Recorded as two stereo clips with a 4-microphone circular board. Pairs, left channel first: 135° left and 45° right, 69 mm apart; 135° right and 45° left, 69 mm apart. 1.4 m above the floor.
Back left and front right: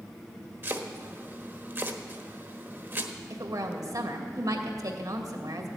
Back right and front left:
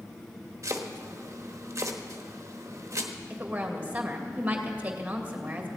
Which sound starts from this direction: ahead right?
A woman speaking, at 3.3 s.